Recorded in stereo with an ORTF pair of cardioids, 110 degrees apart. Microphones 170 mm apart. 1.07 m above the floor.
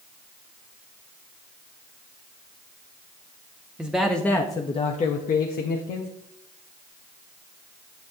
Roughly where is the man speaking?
Ahead.